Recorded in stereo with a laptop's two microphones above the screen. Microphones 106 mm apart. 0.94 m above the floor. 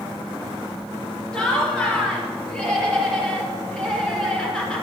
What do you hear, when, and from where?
1.3 s laughter: 5° left (ahead or behind), 2.5 m